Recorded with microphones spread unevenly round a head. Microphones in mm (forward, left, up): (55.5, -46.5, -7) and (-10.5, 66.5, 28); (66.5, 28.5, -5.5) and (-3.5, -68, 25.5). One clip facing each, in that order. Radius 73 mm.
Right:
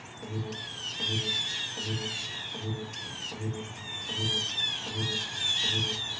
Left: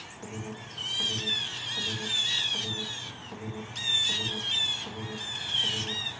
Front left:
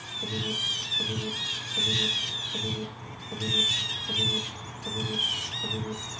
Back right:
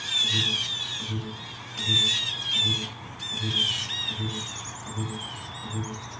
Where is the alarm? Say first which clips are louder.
Right 2 dB, front left 1 dB; 15° left, 6 m.